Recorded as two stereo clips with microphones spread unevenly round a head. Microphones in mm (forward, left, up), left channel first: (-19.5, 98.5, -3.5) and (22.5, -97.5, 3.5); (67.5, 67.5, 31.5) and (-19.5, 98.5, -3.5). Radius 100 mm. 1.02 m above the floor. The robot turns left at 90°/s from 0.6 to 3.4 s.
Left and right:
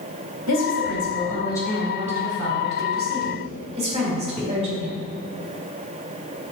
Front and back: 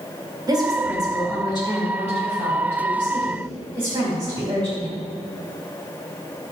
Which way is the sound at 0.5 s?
110° left.